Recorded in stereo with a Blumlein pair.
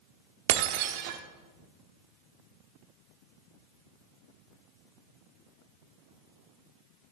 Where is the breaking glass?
50° right, 1.2 m.